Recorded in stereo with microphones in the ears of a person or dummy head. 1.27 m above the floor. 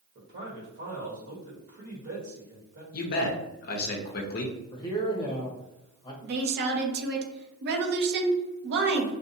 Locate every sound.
0.1 s a man speaking: 55° right (ahead or behind), 1.2 m
2.9 s a man speaking: 45° left (ahead or behind), 0.5 m
4.7 s a man speaking: 25° left (ahead or behind), 0.7 m
6.2 s a woman speaking: 60° right (ahead or behind), 0.6 m